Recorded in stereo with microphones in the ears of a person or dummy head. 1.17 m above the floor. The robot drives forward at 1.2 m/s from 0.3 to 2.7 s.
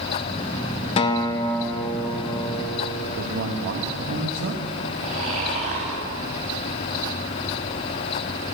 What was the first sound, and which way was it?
A guitar, 25° left (ahead or behind).